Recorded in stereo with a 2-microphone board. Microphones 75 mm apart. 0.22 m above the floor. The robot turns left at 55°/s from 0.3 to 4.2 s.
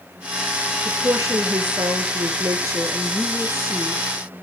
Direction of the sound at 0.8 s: 30° right.